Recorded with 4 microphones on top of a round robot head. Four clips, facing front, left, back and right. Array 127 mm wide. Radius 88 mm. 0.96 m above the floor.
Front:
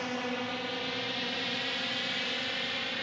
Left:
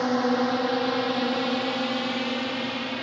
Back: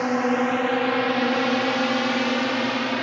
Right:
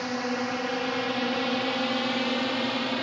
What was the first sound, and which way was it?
A drone, 145° left.